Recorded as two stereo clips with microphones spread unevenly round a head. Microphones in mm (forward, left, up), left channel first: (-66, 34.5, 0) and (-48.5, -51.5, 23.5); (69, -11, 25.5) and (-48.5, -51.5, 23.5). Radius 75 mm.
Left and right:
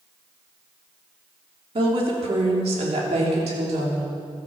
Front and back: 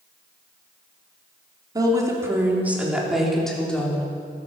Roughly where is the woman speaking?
Right.